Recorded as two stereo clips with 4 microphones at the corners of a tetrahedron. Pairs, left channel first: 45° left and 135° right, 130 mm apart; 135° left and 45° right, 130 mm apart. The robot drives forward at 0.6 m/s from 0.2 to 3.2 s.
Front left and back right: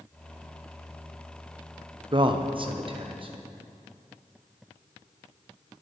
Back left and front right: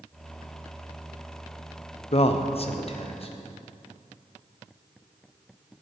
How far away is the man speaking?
About 0.5 m.